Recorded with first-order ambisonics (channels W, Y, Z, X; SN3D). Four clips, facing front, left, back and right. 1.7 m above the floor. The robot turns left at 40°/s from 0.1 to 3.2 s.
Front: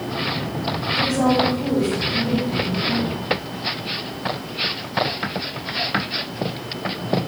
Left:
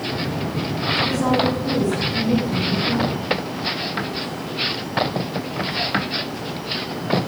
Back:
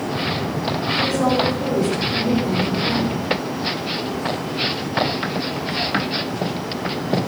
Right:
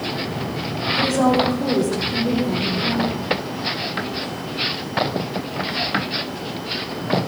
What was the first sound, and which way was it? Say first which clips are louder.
A woman speaking: right 3 dB, front 1 dB; 65° right.